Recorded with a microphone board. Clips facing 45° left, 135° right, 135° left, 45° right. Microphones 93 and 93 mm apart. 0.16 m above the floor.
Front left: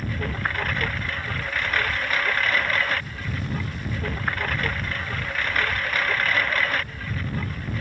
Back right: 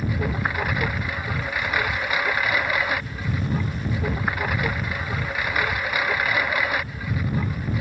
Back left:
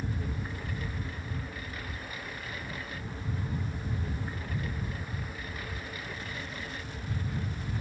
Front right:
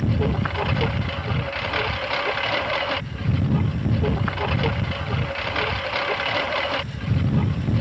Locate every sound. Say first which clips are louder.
0.0 s a lawn mower: back right 3 dB, front right 14 dB; 55° right